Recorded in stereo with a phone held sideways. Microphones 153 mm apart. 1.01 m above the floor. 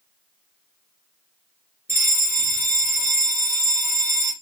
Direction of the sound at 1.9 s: 15° right (ahead or behind).